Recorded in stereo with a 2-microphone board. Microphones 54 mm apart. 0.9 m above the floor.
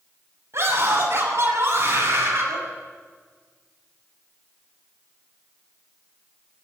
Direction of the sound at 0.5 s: 55° right (ahead or behind).